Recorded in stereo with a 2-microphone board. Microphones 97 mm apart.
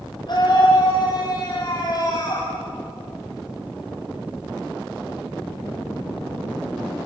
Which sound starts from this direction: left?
A scream, at 0.3 s.